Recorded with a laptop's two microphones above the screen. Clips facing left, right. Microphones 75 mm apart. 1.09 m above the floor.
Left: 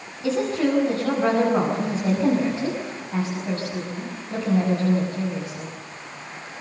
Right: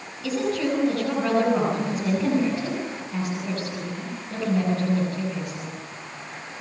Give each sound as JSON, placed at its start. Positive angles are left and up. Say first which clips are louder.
{"t": 0.2, "sound": "a woman speaking", "louder": "left 3 dB", "side_deg": 25, "distance_m": 7.0}